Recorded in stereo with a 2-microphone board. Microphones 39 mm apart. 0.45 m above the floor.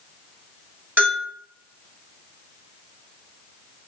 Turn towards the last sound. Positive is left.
turn(degrees=-60)  # may be behind; listen again after turning